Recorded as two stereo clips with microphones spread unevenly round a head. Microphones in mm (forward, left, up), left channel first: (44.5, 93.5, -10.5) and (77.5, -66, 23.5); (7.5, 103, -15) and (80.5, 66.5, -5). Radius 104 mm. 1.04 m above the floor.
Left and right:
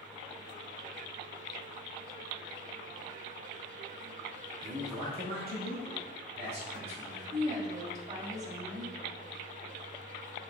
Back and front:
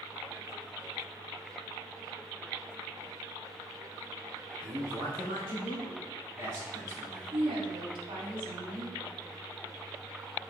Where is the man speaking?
45° right, 1.8 m; by 7.4 s 65° right, 3.5 m.